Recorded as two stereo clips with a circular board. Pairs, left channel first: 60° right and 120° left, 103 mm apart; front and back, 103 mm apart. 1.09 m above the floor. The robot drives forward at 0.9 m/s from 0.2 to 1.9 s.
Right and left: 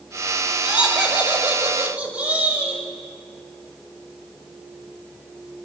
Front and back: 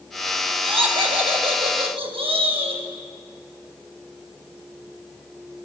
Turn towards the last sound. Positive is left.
turn(degrees=-165)